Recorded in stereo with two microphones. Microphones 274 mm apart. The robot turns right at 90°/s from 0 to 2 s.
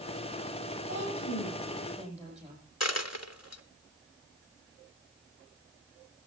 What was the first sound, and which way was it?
A woman speaking, 105° left.